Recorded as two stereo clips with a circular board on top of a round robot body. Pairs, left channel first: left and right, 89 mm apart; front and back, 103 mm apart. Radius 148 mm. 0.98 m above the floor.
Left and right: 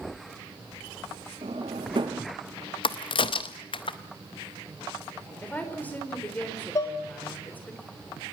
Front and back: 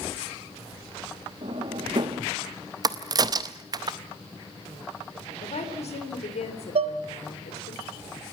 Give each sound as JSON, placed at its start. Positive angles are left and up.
{"t": 1.4, "sound": "a drawer", "azimuth_deg": -135, "distance_m": 0.5}
{"t": 2.8, "sound": "a crack", "azimuth_deg": 125, "distance_m": 0.6}
{"t": 5.4, "sound": "a woman speaking", "azimuth_deg": 15, "distance_m": 4.0}
{"t": 6.8, "sound": "dishes clattering", "azimuth_deg": 150, "distance_m": 0.9}